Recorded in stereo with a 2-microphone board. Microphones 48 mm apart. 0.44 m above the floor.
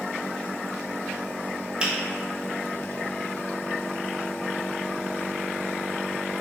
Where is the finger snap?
15° right (ahead or behind), 1.1 m.